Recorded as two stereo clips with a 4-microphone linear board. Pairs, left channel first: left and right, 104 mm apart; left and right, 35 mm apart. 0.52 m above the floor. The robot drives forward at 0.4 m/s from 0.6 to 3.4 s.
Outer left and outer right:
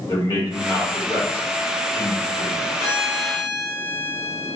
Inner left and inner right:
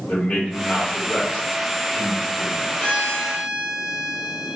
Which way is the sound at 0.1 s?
30° left (ahead or behind).